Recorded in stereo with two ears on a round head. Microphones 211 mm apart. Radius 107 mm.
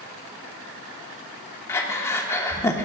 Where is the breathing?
10° left (ahead or behind), 1.2 m.